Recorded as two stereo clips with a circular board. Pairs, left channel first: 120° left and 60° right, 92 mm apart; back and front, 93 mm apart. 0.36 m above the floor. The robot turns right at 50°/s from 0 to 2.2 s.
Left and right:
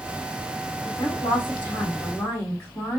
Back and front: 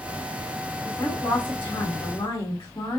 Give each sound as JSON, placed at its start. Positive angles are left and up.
{"t": 0.8, "sound": "a woman speaking", "azimuth_deg": 120, "distance_m": 3.0}